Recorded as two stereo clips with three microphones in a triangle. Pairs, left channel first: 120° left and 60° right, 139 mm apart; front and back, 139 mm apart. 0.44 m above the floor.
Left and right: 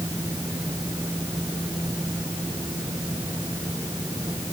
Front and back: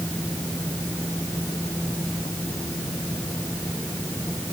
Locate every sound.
Only background noise.